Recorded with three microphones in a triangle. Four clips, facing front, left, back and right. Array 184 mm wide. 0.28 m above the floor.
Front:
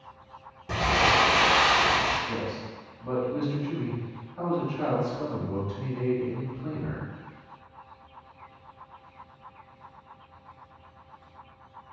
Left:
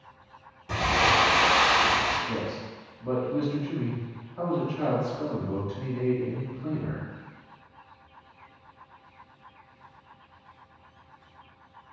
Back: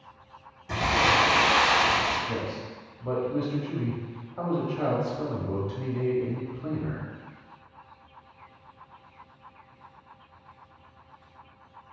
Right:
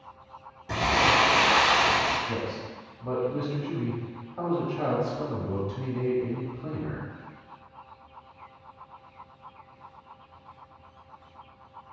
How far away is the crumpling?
About 1.5 m.